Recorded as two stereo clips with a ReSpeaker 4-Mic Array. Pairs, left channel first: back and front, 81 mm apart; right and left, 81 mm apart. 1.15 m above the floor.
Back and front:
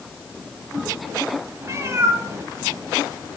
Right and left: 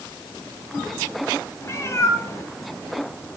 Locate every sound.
1.6 s a cat meowing: 45° right, 1.5 m